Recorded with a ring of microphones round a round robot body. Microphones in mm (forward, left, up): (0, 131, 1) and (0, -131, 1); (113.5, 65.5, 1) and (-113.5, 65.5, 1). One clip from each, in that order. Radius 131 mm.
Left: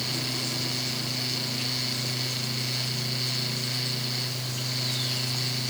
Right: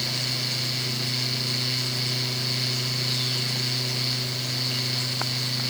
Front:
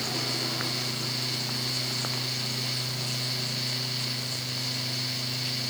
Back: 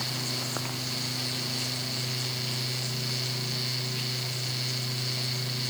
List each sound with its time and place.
Only background noise.